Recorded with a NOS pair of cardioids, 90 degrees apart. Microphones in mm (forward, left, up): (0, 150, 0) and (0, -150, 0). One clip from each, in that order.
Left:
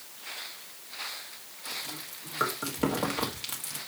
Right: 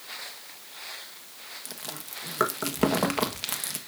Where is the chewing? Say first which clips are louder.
Left 7 dB; 45° right, 1.5 m.